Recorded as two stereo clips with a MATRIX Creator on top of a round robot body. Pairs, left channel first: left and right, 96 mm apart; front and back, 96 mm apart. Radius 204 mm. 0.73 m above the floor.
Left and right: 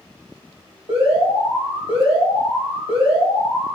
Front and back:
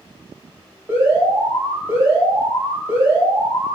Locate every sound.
0.9 s an alarm: 110° right, 4.5 m